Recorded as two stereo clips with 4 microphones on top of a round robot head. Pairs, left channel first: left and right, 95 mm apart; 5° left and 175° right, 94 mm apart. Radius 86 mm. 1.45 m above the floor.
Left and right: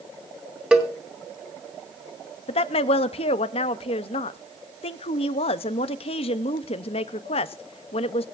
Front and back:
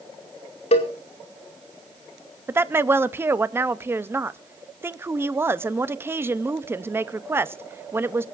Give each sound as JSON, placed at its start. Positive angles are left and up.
{"t": 0.7, "sound": "a cowbell", "azimuth_deg": -10, "distance_m": 2.0}
{"t": 2.5, "sound": "a woman speaking", "azimuth_deg": 120, "distance_m": 0.8}